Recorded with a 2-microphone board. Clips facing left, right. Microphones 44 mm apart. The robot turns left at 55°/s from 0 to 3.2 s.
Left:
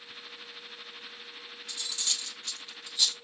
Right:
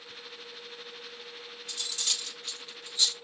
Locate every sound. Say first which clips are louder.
1.7 s cutlery clinking: right 1 dB; 50° right (ahead or behind), 2.5 m; by 3.1 s 25° left (ahead or behind), 2.5 m